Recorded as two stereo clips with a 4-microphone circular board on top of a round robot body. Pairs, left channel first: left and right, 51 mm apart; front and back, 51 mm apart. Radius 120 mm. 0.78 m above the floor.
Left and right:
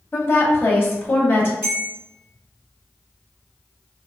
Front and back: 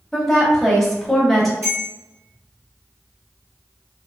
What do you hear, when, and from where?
0.1 s a woman speaking: 85° left, 1.1 m
1.6 s a bell: 140° right, 1.9 m